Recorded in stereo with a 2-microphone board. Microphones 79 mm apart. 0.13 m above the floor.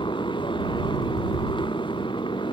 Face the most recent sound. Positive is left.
turn(degrees=80)